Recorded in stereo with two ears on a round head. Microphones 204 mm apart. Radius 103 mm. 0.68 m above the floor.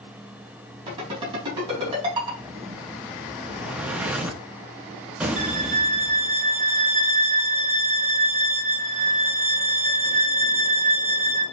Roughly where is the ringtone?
Right.